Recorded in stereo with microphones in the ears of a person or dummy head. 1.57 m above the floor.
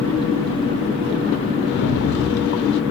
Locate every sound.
1.7 s a rattle: 55° left (ahead or behind), 0.5 m